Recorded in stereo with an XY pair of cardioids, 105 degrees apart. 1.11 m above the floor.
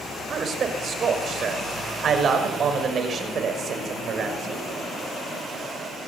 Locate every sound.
0.3 s a man speaking: 50° right, 6 m